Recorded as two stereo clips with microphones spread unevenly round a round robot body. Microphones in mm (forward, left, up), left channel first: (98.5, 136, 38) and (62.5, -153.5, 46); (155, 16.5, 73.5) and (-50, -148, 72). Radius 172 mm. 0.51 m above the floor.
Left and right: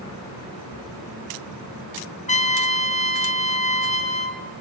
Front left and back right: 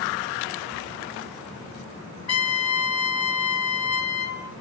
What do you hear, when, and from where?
2.3 s a trumpet: 15° left, 2 m